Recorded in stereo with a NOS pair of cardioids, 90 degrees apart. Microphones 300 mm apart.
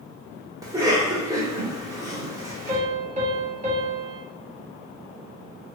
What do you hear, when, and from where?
0.6 s a cough: 10° right, 1.5 m
2.7 s a piano: 25° right, 1.3 m